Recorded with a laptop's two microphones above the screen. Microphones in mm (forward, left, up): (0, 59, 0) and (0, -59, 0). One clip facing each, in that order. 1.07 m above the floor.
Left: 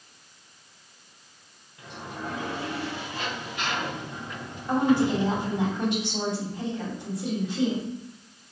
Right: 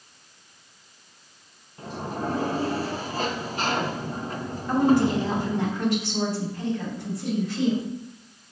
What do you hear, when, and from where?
1.8 s a sliding door: 40° right (ahead or behind), 0.7 m
4.7 s a woman speaking: 20° left (ahead or behind), 3 m